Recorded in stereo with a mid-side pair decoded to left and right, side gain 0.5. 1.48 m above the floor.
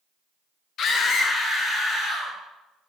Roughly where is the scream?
Ahead left.